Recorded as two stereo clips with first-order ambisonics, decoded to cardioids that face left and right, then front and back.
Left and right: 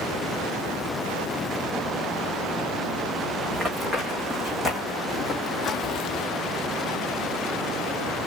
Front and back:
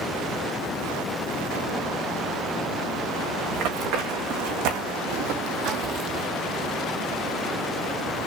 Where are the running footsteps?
170° right, 3 m; by 6.3 s 125° left, 1.0 m.